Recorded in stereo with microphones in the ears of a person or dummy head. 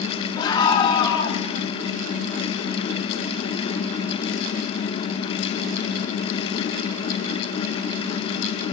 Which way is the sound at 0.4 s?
25° left (ahead or behind).